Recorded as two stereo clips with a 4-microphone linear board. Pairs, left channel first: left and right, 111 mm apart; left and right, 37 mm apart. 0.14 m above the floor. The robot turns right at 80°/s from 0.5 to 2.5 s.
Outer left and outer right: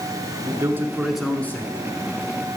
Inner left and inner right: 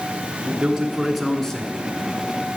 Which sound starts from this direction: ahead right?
A man speaking, at 0.5 s.